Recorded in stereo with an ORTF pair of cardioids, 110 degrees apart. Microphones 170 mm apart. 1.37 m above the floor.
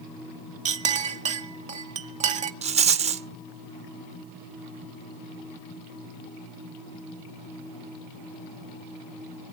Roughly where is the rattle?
Ahead right.